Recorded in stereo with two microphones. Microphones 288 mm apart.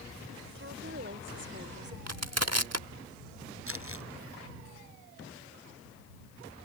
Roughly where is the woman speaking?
Right.